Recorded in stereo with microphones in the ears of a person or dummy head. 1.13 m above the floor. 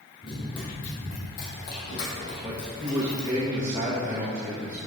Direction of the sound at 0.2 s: 25° left (ahead or behind).